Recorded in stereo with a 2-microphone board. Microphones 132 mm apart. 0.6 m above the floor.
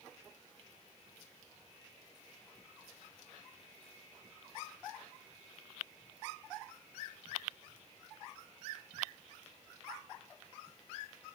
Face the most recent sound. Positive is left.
No sound to turn to.